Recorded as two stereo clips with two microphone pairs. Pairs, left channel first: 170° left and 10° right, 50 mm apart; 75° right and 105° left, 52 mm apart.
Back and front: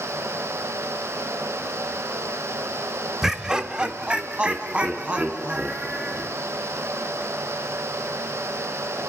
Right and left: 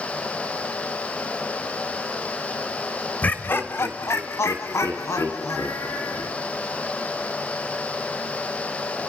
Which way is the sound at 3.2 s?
85° right.